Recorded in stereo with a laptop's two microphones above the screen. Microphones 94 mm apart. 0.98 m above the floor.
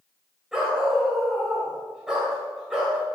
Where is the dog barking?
5° right (ahead or behind), 2 m.